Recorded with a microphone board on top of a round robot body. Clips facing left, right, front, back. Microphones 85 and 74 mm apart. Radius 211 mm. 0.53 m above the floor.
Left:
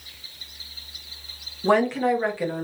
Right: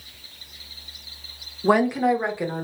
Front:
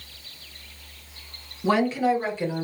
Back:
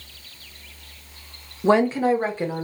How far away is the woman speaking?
About 0.9 m.